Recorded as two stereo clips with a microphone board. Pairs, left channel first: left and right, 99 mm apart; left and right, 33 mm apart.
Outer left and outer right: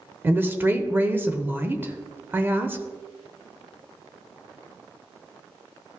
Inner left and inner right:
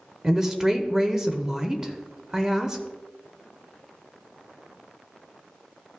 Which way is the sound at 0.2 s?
20° right (ahead or behind).